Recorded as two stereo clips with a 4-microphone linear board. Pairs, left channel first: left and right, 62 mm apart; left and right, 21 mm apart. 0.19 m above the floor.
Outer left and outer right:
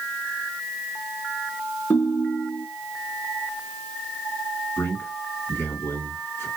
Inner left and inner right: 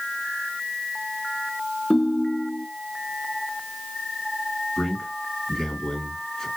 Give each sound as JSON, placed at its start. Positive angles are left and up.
{"t": 1.9, "sound": "a ringtone", "side_deg": 40, "distance_m": 1.1}
{"t": 4.8, "sound": "a man speaking", "side_deg": 40, "distance_m": 2.5}